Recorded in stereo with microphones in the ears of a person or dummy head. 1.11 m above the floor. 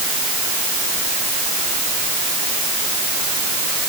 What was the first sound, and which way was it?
Only background noise.